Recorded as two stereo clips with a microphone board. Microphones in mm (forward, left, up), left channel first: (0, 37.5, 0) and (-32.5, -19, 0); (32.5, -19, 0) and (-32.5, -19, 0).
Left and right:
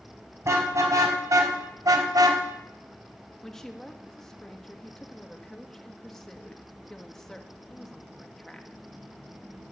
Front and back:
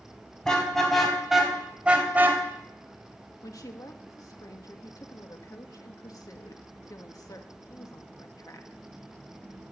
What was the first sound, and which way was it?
A car horn, 80° right.